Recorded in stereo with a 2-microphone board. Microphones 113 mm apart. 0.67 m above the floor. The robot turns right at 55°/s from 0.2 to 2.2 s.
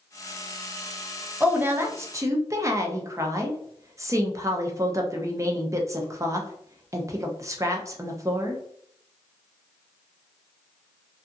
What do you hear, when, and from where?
1.4 s a woman speaking: 15° right (ahead or behind), 0.5 m; by 8.6 s 25° right (ahead or behind), 0.5 m